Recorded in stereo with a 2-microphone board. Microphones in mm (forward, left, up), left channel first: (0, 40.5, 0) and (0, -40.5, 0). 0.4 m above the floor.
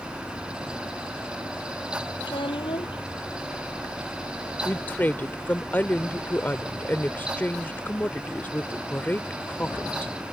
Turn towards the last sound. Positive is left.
turn(degrees=25)  # may be behind; listen again after turning